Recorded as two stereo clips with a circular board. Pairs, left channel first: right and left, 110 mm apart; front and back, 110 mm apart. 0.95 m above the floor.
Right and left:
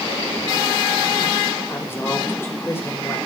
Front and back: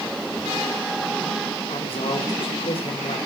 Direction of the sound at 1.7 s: 25° right.